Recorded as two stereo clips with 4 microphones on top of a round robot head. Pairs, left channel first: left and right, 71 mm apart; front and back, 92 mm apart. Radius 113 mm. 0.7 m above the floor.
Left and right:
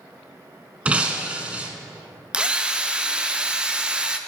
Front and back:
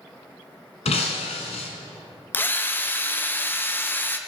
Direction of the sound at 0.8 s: 20° right.